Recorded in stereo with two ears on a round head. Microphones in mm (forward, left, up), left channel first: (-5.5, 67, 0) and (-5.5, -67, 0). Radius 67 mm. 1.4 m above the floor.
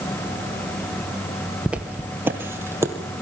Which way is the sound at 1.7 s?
5° right (ahead or behind).